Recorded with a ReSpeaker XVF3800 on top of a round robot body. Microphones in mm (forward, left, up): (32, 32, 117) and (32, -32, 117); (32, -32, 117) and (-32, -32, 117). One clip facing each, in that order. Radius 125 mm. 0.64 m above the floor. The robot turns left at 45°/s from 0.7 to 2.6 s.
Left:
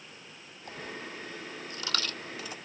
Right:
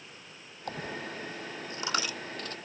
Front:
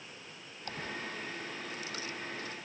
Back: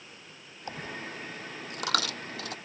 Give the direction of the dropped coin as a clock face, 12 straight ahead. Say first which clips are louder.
Right 4 dB, back 2 dB; 4 o'clock.